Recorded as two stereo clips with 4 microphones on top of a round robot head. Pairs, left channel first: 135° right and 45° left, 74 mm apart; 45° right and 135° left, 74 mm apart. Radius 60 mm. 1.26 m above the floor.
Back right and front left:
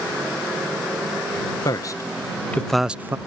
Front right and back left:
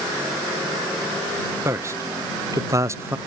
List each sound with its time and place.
1.6 s a man speaking: 170° right; by 3.2 s 85° left